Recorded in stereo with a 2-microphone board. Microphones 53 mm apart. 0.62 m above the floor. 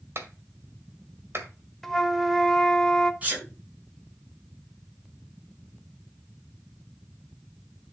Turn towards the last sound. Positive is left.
turn(degrees=-30)  # may be behind; listen again after turning